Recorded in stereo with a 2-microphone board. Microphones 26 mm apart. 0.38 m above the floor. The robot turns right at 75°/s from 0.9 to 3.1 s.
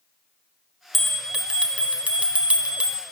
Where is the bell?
175° left, 2.5 m; by 3.0 s 30° right, 2.5 m.